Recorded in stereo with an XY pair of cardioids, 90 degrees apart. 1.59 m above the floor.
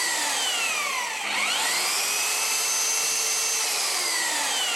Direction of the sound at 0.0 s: 5° right.